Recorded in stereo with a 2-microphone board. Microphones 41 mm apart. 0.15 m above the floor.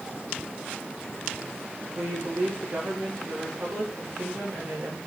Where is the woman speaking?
60° right (ahead or behind), 8.5 m.